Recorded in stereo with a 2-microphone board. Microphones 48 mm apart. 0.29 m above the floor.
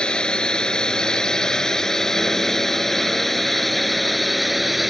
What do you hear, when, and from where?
0.0 s a drone: 20° left (ahead or behind); by 4.9 s centre (ahead or behind)